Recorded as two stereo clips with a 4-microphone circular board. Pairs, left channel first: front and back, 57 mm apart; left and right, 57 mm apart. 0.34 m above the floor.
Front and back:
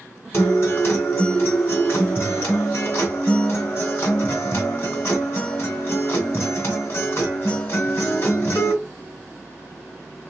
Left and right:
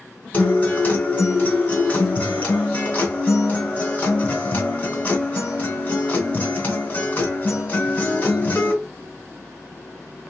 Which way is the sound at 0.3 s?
35° left.